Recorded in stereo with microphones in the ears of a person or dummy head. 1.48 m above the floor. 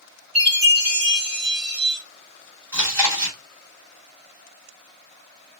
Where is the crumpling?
No crumpling in this recording.